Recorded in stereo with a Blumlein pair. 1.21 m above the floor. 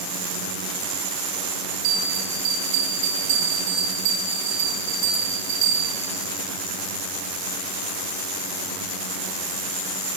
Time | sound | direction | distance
1.8 | a bell | 50° right | 2 m